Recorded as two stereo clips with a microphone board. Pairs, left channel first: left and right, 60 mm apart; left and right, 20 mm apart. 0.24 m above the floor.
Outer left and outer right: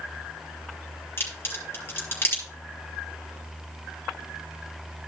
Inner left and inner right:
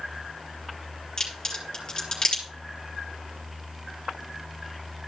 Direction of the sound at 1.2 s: 35° left (ahead or behind).